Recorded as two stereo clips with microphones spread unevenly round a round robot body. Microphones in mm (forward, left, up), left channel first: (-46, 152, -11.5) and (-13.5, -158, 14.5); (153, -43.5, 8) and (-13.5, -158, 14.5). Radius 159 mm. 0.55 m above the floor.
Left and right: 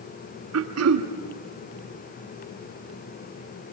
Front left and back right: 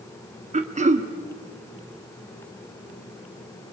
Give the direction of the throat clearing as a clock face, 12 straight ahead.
3 o'clock.